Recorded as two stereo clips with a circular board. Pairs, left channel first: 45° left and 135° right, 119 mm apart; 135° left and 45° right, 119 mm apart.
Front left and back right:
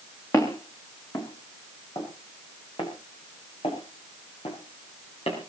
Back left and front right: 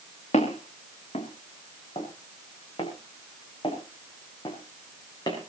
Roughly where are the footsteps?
Left.